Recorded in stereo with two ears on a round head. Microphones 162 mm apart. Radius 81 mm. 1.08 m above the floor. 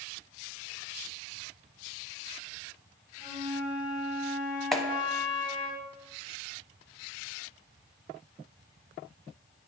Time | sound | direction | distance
3.2 | a flute | 75° left (ahead or behind) | 2.0 m
4.7 | a clap | centre (ahead or behind) | 0.8 m